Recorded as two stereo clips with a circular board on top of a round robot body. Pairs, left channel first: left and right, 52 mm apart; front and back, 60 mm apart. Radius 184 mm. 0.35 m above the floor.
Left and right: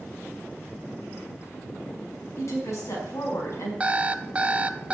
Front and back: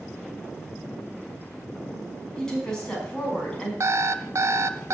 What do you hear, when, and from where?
2.4 s a woman speaking: 80° left, 5.5 m
3.8 s an alarm clock: 155° right, 0.9 m